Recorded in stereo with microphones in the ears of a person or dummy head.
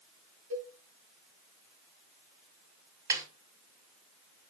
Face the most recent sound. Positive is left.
turn(degrees=-25)  # may be behind; listen again after turning